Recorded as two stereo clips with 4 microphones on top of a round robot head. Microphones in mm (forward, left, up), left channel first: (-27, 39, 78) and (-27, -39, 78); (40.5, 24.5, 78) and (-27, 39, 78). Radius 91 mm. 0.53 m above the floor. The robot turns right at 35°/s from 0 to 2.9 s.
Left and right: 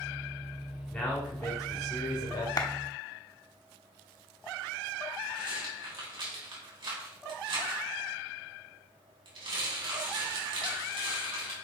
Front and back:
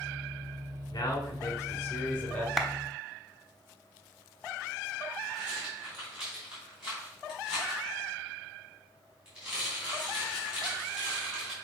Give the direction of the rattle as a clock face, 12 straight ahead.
4 o'clock.